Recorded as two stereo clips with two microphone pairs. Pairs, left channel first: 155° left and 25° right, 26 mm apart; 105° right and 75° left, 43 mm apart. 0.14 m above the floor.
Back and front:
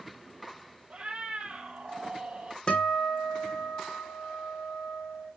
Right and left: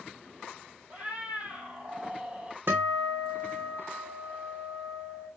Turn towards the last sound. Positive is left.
turn(degrees=105)